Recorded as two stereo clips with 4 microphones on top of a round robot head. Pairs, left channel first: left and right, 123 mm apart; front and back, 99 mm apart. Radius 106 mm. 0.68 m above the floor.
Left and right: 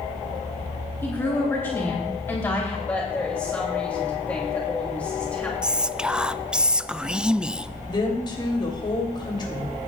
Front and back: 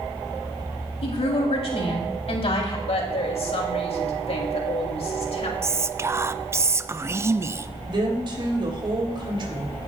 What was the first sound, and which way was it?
A woman speaking, 15° left.